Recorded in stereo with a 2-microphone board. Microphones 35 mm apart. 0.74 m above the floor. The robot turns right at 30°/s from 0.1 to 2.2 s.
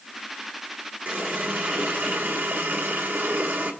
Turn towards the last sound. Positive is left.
turn(degrees=-95)